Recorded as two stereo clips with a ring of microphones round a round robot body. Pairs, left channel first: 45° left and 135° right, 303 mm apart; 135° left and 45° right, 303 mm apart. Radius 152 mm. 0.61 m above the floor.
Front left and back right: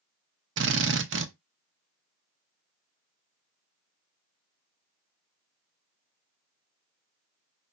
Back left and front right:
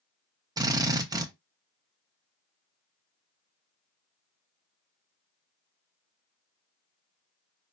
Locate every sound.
0.6 s a drill: 115° right, 0.8 m